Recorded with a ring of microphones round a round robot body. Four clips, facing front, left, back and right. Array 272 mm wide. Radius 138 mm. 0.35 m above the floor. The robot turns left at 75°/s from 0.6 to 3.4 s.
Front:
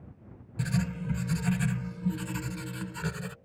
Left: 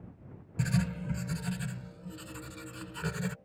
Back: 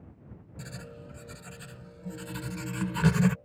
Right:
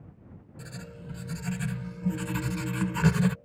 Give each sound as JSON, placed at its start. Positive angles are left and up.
{"t": 0.6, "sound": "writing", "azimuth_deg": 55}